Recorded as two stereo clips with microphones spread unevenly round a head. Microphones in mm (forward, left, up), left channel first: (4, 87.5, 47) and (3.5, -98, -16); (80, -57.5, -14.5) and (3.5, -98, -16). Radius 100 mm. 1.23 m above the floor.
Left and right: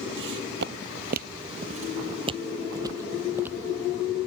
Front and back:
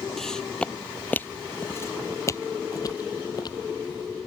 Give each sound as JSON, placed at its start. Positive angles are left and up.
{"t": 0.2, "sound": "footsteps", "azimuth_deg": -55}